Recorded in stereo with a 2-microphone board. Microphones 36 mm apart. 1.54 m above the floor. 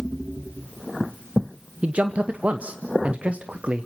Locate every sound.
1.8 s a man speaking: 40° right (ahead or behind), 0.9 m